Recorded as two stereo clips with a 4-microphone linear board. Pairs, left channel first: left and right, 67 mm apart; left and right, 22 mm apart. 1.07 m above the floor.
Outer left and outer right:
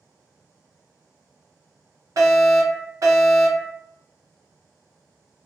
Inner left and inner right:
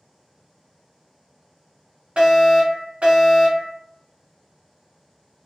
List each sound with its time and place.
2.2 s a fire alarm: 55° right (ahead or behind), 1.6 m